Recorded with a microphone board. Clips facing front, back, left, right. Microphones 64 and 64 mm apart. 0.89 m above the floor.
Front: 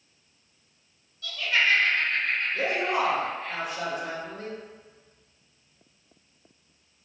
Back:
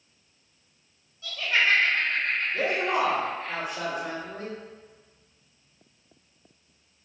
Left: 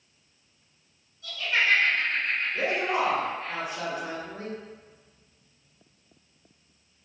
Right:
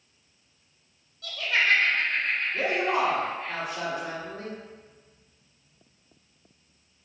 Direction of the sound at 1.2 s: 115° right.